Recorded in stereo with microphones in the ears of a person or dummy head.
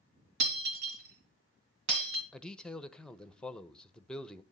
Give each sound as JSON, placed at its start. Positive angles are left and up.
{"t": 0.4, "sound": "breaking glass", "side_deg": -65, "distance_m": 3.0}
{"t": 2.3, "sound": "a man speaking", "side_deg": 5, "distance_m": 0.8}